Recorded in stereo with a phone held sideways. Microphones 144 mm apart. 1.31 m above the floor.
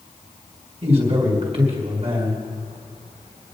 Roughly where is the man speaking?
Right.